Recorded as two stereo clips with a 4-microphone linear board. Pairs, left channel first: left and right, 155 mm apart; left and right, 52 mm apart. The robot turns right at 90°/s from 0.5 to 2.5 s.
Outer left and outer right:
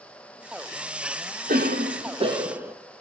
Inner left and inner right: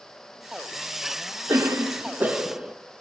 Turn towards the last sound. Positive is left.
turn(degrees=-15)